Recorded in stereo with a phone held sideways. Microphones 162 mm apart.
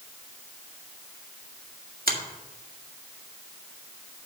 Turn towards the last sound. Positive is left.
turn(degrees=-65)  # may be behind; listen again after turning